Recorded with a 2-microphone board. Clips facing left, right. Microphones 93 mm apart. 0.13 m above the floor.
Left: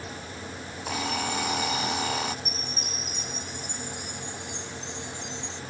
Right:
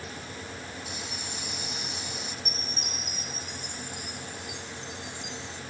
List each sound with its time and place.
0.9 s an alarm clock: 85° left
2.5 s a chime: 5° right (ahead or behind)